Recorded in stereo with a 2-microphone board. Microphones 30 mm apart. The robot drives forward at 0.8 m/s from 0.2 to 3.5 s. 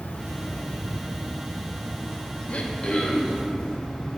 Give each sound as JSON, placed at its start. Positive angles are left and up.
{"t": 0.0, "sound": "an insect", "side_deg": 75, "distance_m": 0.8}
{"t": 2.5, "sound": "throat clearing", "side_deg": 45, "distance_m": 0.5}